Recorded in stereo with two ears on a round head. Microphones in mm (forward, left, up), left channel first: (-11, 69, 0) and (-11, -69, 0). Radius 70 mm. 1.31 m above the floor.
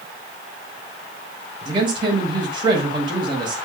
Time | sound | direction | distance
1.6 | a man speaking | 35° right (ahead or behind) | 7 m